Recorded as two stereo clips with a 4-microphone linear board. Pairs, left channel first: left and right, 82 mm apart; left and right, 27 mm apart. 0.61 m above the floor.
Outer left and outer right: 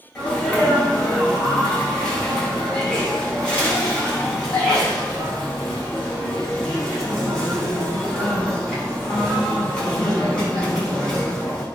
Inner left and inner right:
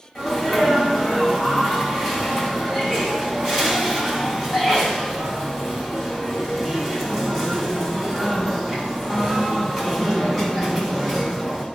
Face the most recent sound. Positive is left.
turn(degrees=15)  # may be behind; listen again after turning